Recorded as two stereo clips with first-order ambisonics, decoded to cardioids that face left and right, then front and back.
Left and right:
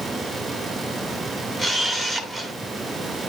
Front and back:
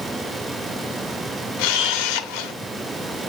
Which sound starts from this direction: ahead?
A camera shutter, at 1.6 s.